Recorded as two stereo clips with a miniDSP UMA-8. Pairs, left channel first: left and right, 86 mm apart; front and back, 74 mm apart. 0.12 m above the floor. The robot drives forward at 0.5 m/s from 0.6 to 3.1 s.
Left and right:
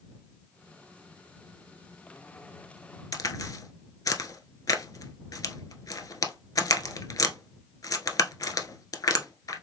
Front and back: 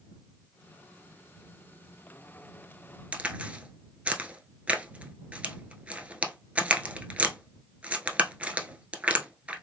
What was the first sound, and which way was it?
A crack, 115° left.